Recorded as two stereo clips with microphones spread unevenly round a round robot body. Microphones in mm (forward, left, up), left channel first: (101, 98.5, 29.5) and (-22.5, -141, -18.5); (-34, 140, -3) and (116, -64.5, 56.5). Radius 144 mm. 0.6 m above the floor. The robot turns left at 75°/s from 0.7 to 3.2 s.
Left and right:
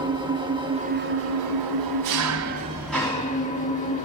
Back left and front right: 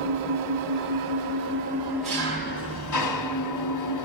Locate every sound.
0.0 s an engine running: 45° right, 1.7 m; by 4.0 s 130° left, 1.7 m